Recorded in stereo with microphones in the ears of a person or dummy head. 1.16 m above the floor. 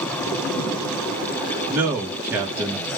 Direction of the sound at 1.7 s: 15° right (ahead or behind).